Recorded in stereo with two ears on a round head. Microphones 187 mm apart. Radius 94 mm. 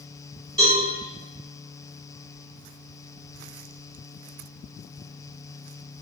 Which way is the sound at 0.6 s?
25° right (ahead or behind).